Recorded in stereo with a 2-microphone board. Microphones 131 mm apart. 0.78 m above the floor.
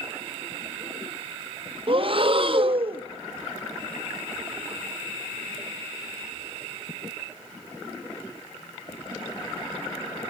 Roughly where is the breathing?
Right.